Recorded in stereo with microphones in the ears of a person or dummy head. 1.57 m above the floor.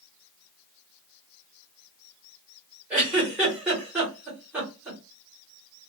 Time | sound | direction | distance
2.9 | a giggle | 10° right (ahead or behind) | 1.2 m